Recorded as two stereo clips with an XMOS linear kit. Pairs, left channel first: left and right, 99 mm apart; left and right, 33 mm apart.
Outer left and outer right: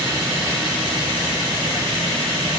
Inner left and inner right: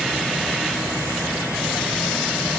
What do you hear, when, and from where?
Only background noise.